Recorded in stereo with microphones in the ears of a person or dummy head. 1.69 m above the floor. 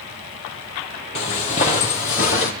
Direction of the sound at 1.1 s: 40° left (ahead or behind).